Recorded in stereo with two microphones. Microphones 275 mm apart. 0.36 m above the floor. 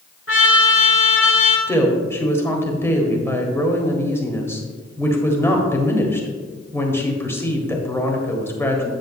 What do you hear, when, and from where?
0.3 s a trumpet: 50° left (ahead or behind), 1.9 m
1.7 s a woman speaking: 10° left (ahead or behind), 1.5 m